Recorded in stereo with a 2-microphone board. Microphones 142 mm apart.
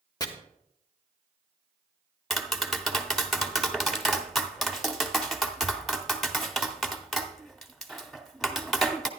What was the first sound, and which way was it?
Chopping, 25° left (ahead or behind).